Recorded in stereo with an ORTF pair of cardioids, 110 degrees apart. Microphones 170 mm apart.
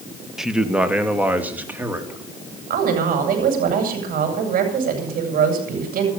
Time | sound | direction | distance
0.4 | a man speaking | 5° right | 1.6 m
2.7 | a woman speaking | 60° right | 7.5 m